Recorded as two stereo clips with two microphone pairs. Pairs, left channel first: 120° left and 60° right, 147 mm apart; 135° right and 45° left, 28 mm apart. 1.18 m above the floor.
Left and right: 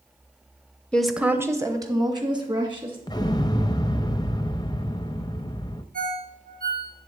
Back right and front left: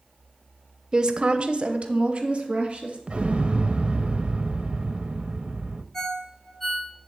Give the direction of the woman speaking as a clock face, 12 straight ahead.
10 o'clock.